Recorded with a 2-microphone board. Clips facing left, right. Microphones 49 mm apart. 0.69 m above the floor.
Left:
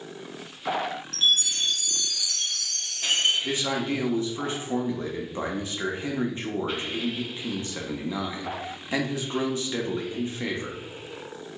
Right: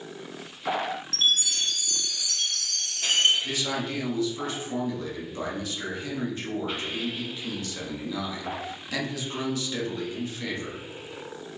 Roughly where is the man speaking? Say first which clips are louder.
Left 3 dB; left.